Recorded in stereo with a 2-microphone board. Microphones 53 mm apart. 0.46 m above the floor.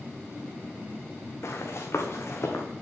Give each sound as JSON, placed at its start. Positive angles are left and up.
{"t": 1.4, "sound": "running footsteps", "side_deg": 60, "distance_m": 1.8}